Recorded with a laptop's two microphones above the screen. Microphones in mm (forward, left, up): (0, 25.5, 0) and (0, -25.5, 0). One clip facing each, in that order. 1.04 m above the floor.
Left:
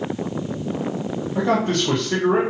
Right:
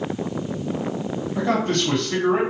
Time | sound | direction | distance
1.4 | a man speaking | 25° left (ahead or behind) | 0.9 m